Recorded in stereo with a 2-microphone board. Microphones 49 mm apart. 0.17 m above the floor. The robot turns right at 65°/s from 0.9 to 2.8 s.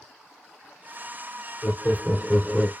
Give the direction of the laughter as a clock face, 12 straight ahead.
8 o'clock.